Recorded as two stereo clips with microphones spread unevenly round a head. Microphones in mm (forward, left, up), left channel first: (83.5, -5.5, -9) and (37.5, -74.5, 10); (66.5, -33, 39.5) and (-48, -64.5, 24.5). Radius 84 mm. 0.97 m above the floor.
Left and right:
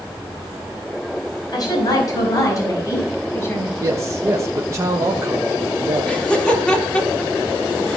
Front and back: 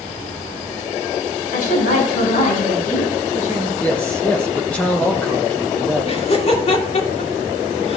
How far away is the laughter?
About 3.5 m.